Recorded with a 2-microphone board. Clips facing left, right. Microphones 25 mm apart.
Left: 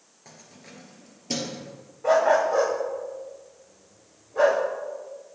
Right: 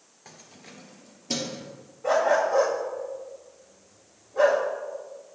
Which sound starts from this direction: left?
A dog barking, at 2.0 s.